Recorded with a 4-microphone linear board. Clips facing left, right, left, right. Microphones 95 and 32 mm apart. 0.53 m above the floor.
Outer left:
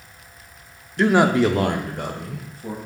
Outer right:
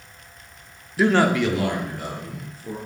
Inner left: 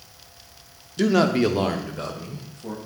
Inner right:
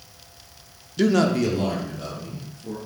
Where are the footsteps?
No footsteps in this recording.